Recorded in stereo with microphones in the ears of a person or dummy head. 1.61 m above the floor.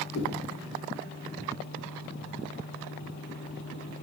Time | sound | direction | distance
0.1 | a whoosh | 85° left | 1.8 m